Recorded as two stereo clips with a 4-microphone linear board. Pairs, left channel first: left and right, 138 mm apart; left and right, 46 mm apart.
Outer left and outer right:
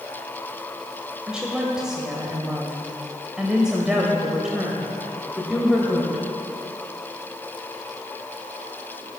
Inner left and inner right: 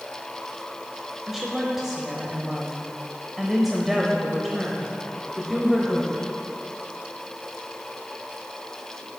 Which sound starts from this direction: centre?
A woman speaking, at 1.3 s.